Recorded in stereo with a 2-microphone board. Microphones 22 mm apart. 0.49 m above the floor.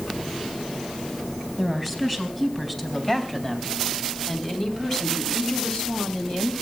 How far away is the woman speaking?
About 4.5 m.